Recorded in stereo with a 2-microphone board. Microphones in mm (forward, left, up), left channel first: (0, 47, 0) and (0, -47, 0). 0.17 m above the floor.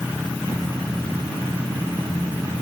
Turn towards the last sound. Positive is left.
No sound to turn to.